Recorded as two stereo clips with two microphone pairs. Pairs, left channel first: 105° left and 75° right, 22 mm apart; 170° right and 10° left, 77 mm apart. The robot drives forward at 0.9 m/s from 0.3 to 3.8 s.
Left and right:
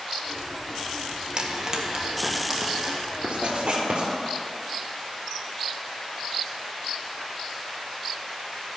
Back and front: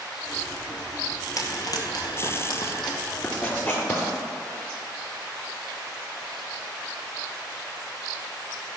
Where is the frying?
130° right, 1.3 m; by 3.0 s 155° right, 2.5 m.